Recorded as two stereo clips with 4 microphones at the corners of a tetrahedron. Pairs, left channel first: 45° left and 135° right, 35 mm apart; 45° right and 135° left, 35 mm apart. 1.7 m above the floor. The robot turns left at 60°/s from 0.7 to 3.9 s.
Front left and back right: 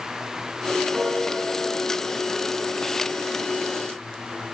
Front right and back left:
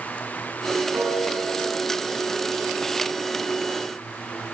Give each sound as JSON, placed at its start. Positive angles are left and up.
{"t": 0.9, "sound": "a piano", "azimuth_deg": 150, "distance_m": 9.0}